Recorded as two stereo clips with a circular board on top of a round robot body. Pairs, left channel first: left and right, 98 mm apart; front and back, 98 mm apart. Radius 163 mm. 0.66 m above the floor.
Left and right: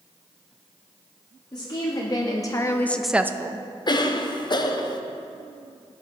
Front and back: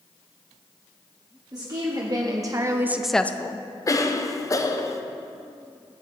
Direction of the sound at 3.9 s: 55° left.